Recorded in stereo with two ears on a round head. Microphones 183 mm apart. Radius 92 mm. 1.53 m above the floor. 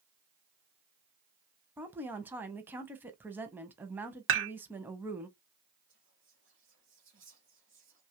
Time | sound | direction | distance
1.8 | a woman speaking | 10° right (ahead or behind) | 0.6 m
4.3 | dishes clattering | 65° right (ahead or behind) | 1.4 m
5.9 | whispering | 60° right (ahead or behind) | 1.3 m